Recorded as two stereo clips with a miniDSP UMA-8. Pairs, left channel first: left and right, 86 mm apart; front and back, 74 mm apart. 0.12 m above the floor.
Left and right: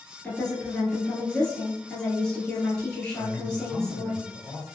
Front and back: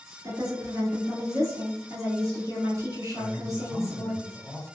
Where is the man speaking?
155° left, 1.7 m.